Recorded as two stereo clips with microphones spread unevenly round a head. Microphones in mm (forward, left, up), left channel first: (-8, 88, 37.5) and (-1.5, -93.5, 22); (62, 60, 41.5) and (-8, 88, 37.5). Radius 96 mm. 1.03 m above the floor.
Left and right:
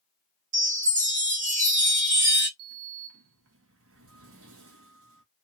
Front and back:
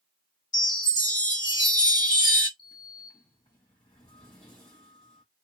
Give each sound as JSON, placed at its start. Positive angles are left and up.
{"t": 0.5, "sound": "a chime", "azimuth_deg": -55, "distance_m": 1.3}
{"t": 2.6, "sound": "a sliding door", "azimuth_deg": -70, "distance_m": 0.7}